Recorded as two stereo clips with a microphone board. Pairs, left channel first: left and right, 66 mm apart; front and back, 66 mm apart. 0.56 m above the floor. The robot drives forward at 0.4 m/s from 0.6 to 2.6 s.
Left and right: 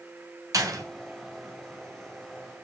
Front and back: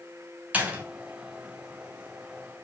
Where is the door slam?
115° right, 3.5 m.